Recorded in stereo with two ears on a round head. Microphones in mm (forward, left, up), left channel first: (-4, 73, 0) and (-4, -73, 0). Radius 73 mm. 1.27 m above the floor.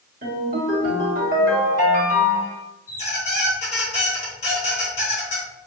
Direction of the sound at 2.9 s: 45° left (ahead or behind).